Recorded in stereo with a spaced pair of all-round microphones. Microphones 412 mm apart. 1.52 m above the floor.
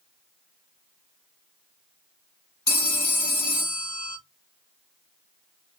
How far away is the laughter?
No laughter in this recording.